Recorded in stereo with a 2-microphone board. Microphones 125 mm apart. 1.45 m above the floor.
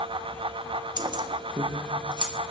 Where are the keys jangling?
35° right (ahead or behind), 0.6 m; by 2.3 s 40° right (ahead or behind), 1.1 m.